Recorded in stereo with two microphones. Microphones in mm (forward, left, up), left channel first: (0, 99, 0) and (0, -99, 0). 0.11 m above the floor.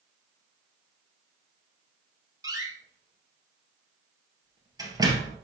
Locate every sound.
2.4 s a door slam: 15° right (ahead or behind), 1.9 m